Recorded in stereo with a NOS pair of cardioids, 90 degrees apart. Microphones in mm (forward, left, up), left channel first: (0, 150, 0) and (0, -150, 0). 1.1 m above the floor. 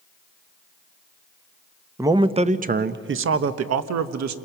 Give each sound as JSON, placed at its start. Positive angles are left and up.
{"t": 2.0, "sound": "a man speaking", "azimuth_deg": -10, "distance_m": 1.1}